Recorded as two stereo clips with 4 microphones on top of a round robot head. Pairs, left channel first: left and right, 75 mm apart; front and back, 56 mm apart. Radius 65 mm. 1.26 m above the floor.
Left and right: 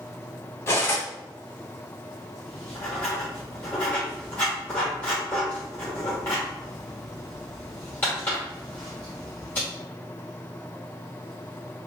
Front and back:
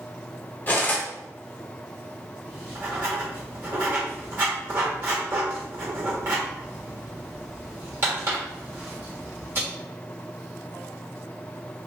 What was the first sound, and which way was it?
Cutlery clinking, 45° left.